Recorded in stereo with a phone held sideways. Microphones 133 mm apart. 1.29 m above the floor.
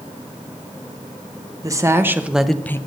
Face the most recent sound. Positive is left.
turn(degrees=20)  # may be behind; listen again after turning